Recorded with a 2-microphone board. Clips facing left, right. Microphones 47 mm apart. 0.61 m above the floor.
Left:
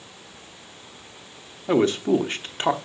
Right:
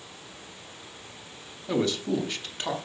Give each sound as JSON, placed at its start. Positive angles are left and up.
{"t": 1.7, "sound": "a man speaking", "side_deg": 35, "distance_m": 0.7}